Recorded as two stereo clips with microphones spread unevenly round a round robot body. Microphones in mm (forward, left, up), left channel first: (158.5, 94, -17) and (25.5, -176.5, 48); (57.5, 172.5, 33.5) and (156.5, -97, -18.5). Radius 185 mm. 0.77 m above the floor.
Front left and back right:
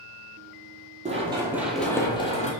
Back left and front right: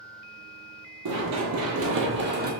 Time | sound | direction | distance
1.1 | running footsteps | 70° right | 1.0 m